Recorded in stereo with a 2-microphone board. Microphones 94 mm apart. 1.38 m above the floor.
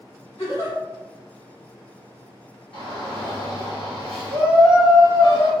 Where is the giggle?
85° left, 2.0 m.